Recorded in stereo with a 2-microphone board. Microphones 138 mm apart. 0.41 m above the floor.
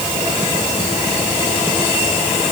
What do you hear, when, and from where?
Only background noise.